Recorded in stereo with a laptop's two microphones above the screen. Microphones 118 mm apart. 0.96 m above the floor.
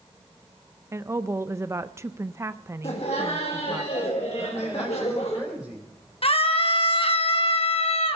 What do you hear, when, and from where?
0.9 s a woman speaking: 25° right (ahead or behind), 0.5 m
2.8 s laughter: 65° left (ahead or behind), 1.5 m
4.4 s a man speaking: 5° right (ahead or behind), 3.5 m
6.2 s a scream: 55° left (ahead or behind), 1.2 m